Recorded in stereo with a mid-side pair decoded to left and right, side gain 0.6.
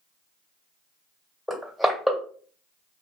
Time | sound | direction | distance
1.5 | crushing | 5° left | 1.9 m